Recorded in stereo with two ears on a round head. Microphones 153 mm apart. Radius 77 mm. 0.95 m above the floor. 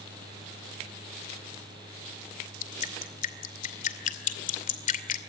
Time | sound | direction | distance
2.6 | dripping | 50° left (ahead or behind) | 2.5 m